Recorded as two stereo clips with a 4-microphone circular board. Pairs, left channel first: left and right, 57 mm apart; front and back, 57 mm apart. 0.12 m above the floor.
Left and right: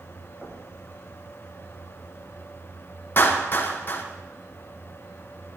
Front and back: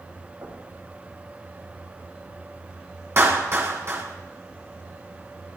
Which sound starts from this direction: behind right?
Knocking, at 0.4 s.